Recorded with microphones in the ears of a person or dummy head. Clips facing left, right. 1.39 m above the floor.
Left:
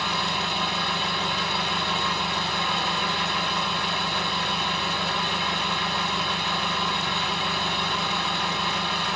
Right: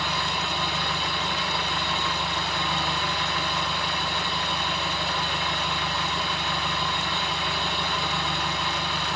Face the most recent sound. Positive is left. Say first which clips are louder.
# left 1 dB
turn(degrees=5)  # may be behind; listen again after turning